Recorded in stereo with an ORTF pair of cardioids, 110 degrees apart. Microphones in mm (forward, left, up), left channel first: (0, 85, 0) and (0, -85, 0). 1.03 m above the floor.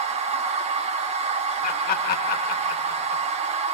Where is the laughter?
65° left, 1.2 m.